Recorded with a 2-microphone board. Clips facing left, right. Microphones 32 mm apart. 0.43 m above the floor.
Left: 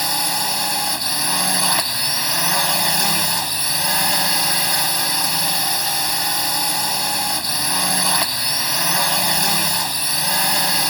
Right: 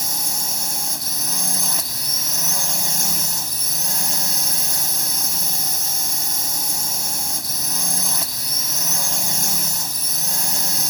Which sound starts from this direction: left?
A drone, at 0.0 s.